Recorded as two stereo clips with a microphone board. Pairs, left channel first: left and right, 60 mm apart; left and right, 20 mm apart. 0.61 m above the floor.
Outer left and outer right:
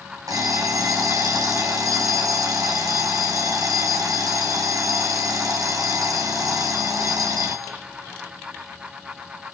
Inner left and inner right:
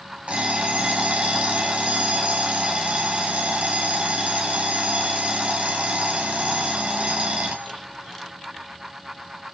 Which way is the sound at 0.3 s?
85° right.